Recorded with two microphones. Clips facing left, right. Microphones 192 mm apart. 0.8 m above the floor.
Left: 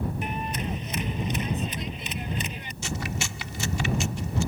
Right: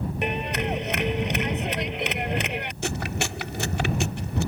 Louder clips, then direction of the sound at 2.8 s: Right 1 dB; 65° right (ahead or behind).